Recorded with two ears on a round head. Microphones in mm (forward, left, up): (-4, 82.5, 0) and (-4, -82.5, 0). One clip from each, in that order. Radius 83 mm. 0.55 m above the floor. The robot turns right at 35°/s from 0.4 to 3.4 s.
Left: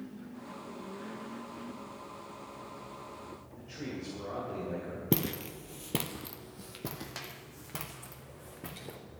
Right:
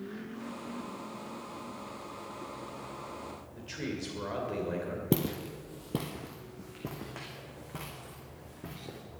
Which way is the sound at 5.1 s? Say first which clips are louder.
Even; 20° left (ahead or behind).